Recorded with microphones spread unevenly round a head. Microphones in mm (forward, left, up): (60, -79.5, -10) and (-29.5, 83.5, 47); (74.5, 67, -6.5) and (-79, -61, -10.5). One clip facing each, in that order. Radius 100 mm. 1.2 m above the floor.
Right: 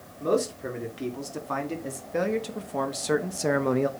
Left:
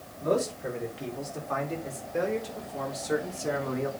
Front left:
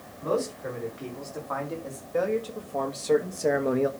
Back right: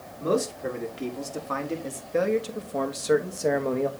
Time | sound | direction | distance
0.2 | a man speaking | 95° right | 2.5 m